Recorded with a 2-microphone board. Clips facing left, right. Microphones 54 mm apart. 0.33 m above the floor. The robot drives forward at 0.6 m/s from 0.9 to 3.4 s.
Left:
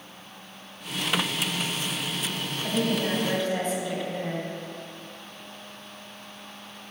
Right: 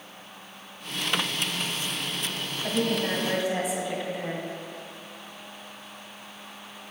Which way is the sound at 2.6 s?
10° right (ahead or behind).